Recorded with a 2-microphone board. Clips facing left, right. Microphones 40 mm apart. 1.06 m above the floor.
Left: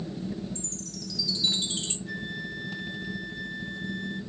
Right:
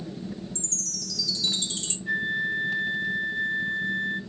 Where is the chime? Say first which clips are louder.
Even; 15° left (ahead or behind), 2.5 m.